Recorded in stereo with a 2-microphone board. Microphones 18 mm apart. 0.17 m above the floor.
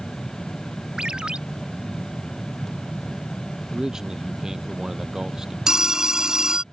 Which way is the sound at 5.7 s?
35° right (ahead or behind).